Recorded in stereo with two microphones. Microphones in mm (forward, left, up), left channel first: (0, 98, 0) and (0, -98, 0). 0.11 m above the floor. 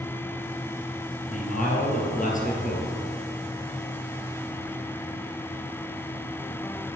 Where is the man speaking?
40° left (ahead or behind), 3 m.